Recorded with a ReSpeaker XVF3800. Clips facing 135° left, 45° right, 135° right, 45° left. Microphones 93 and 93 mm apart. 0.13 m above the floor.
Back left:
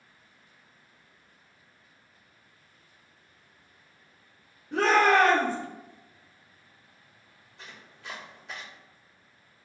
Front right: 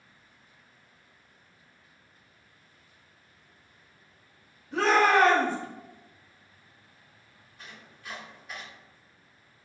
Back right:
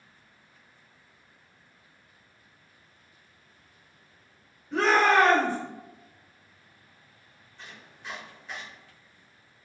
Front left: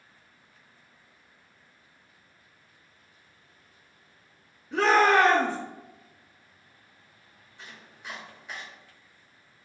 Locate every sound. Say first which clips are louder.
4.7 s a shout: back left 1 dB, front left 1 dB; 115° left, 1.5 m
7.6 s chopping: back left 1 dB, even; 120° left, 1.7 m